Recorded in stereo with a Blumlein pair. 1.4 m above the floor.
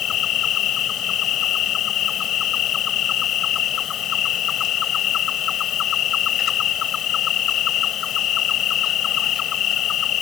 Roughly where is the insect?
Ahead left.